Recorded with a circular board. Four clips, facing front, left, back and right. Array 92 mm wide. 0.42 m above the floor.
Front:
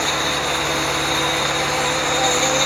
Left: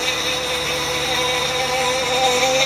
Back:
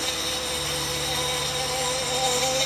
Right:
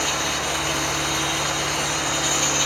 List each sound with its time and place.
0.0 s an insect: 75° left